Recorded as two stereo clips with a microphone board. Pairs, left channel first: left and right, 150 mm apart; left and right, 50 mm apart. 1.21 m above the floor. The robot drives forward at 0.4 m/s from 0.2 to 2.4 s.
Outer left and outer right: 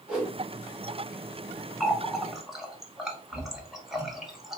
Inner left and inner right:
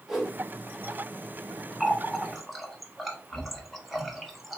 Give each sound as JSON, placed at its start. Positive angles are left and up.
{"t": 0.1, "sound": "a whoosh", "side_deg": -5, "distance_m": 1.6}
{"t": 1.8, "sound": "a running tap", "side_deg": 0, "distance_m": 0.7}